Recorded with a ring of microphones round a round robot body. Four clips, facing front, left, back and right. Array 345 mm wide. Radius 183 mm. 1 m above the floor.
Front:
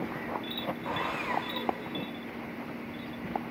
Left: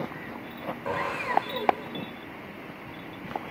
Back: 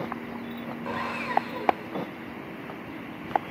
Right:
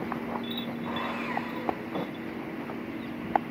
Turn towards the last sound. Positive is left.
turn(degrees=100)